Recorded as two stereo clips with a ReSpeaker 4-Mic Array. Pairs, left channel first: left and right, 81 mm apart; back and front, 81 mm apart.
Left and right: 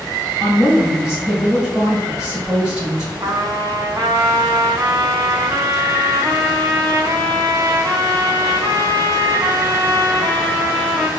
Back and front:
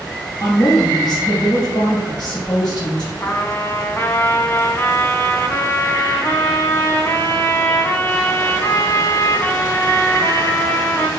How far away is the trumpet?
About 0.6 m.